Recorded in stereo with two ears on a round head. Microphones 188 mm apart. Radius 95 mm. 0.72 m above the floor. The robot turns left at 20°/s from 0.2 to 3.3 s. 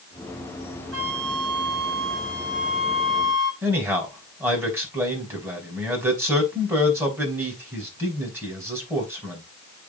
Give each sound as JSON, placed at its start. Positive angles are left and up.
{"t": 0.9, "sound": "a flute", "azimuth_deg": -105, "distance_m": 2.0}
{"t": 3.6, "sound": "a man speaking", "side_deg": -15, "distance_m": 4.5}